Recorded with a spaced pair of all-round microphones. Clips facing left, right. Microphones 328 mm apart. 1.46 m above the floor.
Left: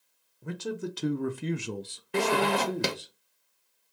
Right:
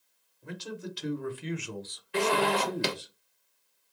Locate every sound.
0.4 s a man speaking: 60° left (ahead or behind), 0.9 m; by 3.1 s 10° right (ahead or behind), 0.8 m
2.1 s a zipper: 55° left (ahead or behind), 0.9 m